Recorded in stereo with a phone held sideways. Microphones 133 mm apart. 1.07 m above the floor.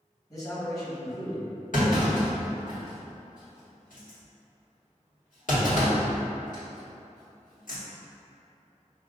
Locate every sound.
0.3 s a man speaking: 25° left (ahead or behind), 1.6 m
1.7 s a clunk: 75° left (ahead or behind), 1.7 m